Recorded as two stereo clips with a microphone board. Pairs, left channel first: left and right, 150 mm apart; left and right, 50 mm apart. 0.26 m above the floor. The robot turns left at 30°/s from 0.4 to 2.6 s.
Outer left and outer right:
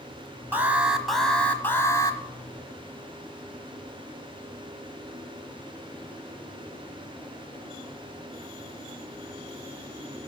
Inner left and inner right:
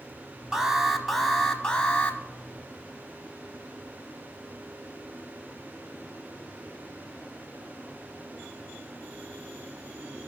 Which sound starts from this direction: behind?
An alarm, at 0.5 s.